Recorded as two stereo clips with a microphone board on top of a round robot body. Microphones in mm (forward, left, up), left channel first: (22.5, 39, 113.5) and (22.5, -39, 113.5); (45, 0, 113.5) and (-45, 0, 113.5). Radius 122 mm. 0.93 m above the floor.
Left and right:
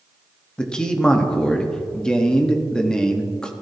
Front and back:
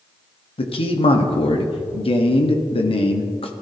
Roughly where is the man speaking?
Ahead.